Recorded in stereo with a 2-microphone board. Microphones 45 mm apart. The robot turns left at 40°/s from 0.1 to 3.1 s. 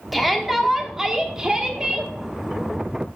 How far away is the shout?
About 1.0 m.